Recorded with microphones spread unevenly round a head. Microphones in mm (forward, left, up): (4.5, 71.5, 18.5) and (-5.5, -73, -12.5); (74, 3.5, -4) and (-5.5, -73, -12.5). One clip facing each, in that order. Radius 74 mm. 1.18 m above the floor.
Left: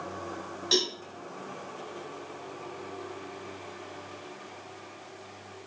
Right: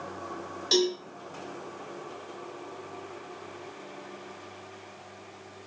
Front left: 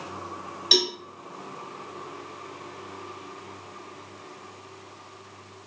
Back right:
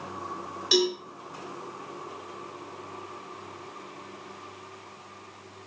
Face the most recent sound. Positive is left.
turn(degrees=-10)